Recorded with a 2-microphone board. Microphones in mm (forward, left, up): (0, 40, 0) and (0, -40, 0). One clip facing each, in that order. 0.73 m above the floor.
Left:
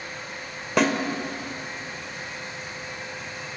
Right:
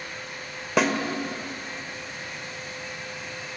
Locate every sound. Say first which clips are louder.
0.8 s a snare drum: left 1 dB; 5° right (ahead or behind), 1.9 m